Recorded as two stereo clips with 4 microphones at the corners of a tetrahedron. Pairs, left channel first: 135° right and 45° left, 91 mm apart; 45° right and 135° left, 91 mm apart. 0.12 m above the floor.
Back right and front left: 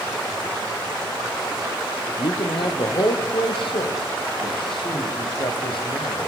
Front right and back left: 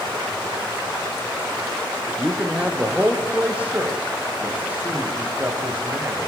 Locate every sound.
2.2 s a man speaking: 145° right, 4 m; by 6.3 s 155° right, 6.5 m